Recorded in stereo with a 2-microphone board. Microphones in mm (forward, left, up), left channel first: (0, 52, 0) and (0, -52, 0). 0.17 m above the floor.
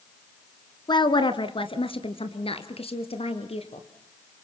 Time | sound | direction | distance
0.9 | a woman speaking | 45° left (ahead or behind) | 1.8 m